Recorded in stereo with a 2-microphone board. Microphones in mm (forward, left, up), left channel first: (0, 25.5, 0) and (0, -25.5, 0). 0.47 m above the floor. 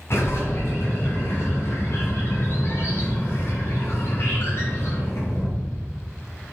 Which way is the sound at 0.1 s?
55° left (ahead or behind).